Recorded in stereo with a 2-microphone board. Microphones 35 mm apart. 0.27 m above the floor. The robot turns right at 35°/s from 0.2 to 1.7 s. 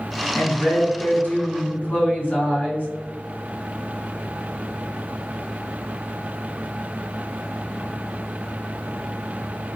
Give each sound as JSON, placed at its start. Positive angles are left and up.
{"t": 0.3, "sound": "a woman speaking", "azimuth_deg": 65, "distance_m": 2.0}